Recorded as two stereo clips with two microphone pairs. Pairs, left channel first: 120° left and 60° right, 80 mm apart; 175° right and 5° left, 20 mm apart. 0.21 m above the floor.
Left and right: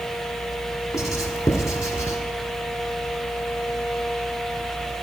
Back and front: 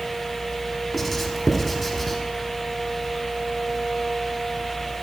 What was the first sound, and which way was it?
Writing, 100° left.